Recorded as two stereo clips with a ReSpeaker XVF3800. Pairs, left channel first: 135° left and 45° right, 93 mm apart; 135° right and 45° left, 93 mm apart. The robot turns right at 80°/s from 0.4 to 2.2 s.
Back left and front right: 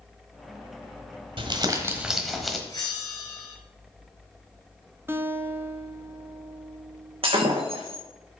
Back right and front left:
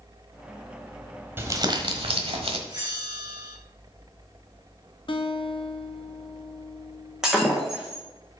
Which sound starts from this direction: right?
A guitar, at 5.1 s.